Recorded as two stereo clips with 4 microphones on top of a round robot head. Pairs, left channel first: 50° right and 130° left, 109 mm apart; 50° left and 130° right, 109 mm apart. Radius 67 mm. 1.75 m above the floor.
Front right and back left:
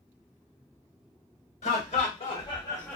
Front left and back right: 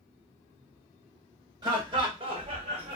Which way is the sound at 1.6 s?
75° right.